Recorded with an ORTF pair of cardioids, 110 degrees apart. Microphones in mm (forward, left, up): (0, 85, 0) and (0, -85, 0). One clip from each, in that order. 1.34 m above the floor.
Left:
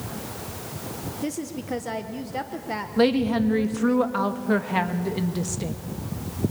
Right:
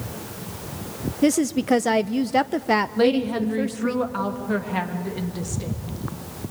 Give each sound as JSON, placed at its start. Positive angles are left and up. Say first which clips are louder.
{"t": 1.2, "sound": "a woman speaking", "louder": "right 13 dB", "azimuth_deg": -50, "distance_m": 0.6}
{"t": 3.0, "sound": "a woman speaking", "louder": "right 1 dB", "azimuth_deg": 15, "distance_m": 1.9}